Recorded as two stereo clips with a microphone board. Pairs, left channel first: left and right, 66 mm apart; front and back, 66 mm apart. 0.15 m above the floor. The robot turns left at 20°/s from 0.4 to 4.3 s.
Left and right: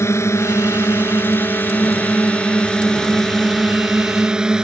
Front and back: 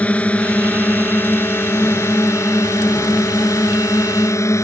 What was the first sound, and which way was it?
A drone, 65° left.